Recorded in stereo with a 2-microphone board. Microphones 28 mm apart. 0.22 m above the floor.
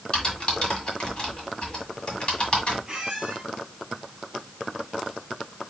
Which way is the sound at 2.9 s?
20° right (ahead or behind).